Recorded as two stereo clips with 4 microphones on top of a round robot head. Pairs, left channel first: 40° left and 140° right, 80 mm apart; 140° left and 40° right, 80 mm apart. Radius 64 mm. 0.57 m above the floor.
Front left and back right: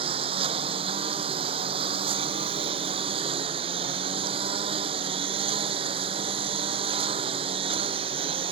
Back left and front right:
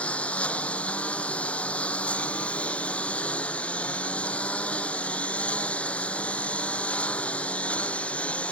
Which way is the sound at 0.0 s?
145° right.